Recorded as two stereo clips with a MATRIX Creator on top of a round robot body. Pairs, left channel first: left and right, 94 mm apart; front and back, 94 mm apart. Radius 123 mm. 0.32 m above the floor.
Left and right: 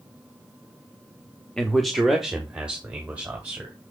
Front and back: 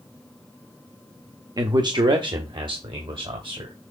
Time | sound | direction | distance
1.6 | a man speaking | 170° left | 1.1 m